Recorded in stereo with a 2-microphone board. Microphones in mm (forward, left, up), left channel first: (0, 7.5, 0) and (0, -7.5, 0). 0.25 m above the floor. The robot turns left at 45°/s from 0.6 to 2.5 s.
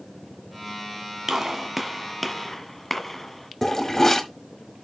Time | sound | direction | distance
1.3 | a gunshot | 35° right (ahead or behind) | 1.4 m
3.6 | a toilet flushing | 25° left (ahead or behind) | 1.2 m